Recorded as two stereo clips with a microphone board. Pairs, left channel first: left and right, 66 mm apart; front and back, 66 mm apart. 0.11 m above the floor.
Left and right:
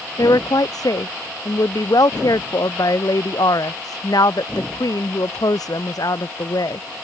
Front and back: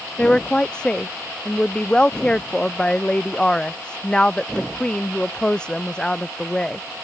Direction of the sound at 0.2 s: 75° left.